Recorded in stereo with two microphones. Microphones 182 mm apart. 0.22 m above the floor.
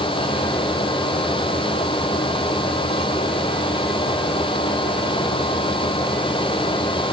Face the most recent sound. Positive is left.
No sound to turn to.